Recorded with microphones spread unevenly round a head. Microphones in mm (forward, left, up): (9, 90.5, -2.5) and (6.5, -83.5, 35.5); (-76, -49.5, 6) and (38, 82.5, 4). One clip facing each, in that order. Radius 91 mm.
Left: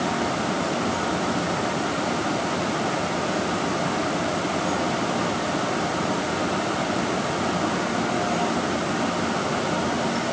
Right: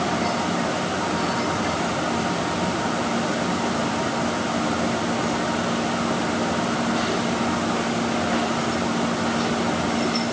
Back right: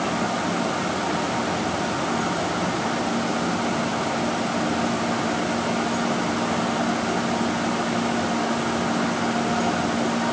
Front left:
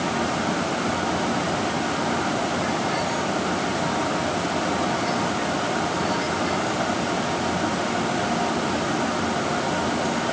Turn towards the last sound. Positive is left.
No sound to turn to.